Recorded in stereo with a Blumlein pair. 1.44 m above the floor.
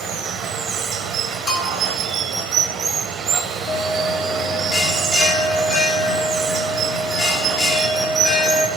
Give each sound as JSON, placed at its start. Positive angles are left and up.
{"t": 0.0, "sound": "running water", "azimuth_deg": -25, "distance_m": 0.8}
{"t": 1.5, "sound": "a bell", "azimuth_deg": 25, "distance_m": 5.0}
{"t": 3.7, "sound": "a bell", "azimuth_deg": 30, "distance_m": 1.6}